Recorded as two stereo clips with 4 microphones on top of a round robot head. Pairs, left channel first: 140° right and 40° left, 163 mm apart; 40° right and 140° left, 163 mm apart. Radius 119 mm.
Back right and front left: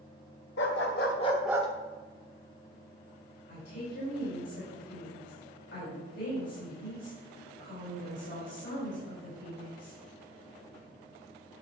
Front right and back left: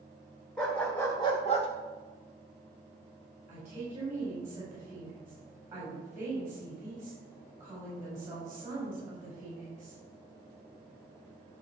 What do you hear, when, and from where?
0.6 s a dog barking: 125° right, 1.4 m; by 1.7 s straight ahead, 0.7 m
3.5 s a woman speaking: 145° right, 4.5 m